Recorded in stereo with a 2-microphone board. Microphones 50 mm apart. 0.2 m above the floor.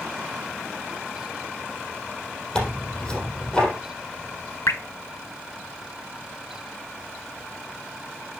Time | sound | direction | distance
2.5 | tearing paper | 15° left (ahead or behind) | 3.5 m
4.7 | dripping | 70° left (ahead or behind) | 0.5 m